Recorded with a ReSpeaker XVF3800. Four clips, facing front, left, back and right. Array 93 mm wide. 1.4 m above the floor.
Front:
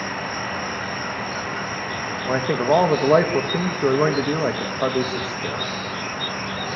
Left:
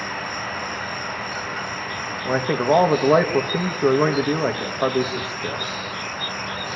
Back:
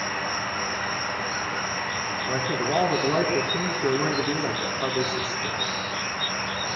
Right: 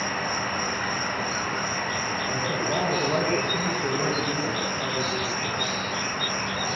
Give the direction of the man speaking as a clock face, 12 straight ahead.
10 o'clock.